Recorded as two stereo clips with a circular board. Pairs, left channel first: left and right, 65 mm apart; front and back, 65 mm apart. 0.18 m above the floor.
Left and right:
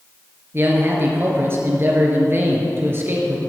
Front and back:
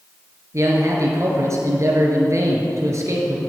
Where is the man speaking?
140° right, 2.5 m.